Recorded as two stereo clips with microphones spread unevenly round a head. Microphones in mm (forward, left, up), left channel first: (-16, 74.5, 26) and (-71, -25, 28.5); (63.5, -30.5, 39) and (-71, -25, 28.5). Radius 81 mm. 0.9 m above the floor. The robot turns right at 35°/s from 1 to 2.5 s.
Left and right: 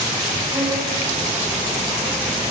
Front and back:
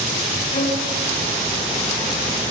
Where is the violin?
45° right, 6 m.